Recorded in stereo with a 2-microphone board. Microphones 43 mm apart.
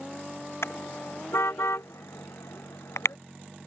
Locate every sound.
0.6 s a car horn: 70° left (ahead or behind); by 3.2 s 85° left